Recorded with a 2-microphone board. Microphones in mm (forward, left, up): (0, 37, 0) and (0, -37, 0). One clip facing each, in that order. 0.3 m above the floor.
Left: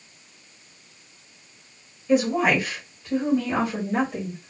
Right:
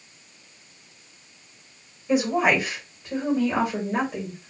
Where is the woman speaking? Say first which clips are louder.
Left 1 dB; 10° right (ahead or behind), 1.5 m; by 4.5 s 5° right (ahead or behind), 1.7 m.